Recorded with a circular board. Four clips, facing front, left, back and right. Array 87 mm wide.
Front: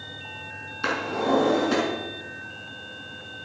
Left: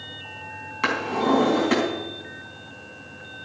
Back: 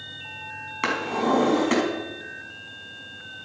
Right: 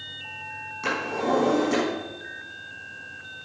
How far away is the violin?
I don't hear a violin.